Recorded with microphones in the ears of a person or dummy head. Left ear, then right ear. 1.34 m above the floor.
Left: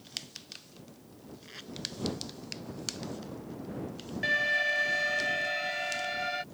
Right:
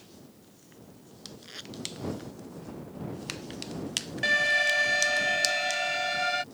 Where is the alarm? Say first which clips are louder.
Right 3 dB; 25° right (ahead or behind).